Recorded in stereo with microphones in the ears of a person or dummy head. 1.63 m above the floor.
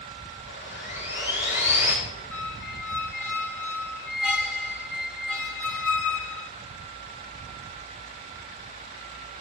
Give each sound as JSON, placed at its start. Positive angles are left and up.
{"t": 0.5, "sound": "sawing", "side_deg": 70, "distance_m": 3.0}
{"t": 2.3, "sound": "a squeak", "side_deg": 5, "distance_m": 1.3}